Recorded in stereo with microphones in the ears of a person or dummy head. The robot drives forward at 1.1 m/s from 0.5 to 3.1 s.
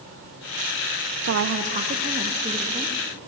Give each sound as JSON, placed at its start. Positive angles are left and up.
{"t": 1.2, "sound": "a woman speaking", "side_deg": -50, "distance_m": 0.6}